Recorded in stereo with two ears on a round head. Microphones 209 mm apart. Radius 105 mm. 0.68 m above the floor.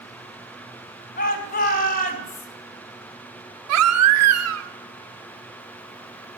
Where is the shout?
40° left (ahead or behind), 3.5 m.